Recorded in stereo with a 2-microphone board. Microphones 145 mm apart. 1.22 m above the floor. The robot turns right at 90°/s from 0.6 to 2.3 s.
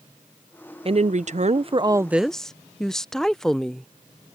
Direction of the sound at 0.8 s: 125° right.